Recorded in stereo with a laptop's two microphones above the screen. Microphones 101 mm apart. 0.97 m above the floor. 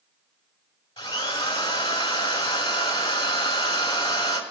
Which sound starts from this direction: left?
A drill, at 1.0 s.